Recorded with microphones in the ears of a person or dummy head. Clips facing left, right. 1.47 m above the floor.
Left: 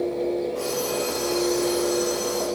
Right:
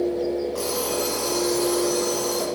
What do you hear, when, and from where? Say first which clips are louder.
0.6 s an alarm clock: even; 50° right (ahead or behind), 1.2 m